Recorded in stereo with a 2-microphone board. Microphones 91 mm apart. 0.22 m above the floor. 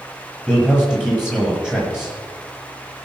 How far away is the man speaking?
About 6.5 m.